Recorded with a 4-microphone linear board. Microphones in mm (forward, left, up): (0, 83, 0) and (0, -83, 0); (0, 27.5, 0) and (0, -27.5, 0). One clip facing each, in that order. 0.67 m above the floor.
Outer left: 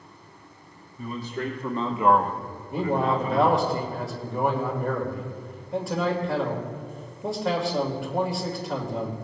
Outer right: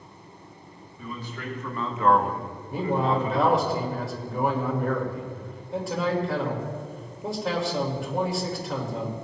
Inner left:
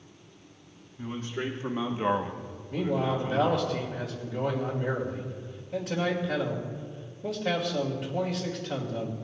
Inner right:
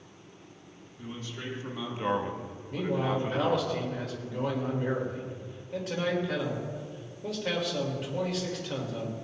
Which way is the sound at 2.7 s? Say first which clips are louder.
Outer left 1 dB, inner left 1 dB; centre (ahead or behind).